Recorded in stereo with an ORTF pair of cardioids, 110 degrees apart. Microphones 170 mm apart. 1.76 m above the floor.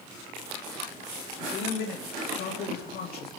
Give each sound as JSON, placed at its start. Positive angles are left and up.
{"t": 1.4, "sound": "a man speaking", "azimuth_deg": 70, "distance_m": 2.5}